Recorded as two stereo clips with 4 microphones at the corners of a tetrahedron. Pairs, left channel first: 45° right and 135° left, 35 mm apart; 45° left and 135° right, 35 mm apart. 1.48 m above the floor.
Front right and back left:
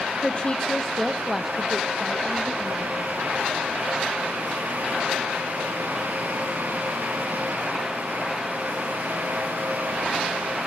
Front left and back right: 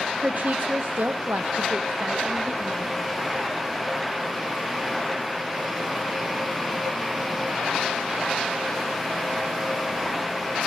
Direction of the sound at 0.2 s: 100° right.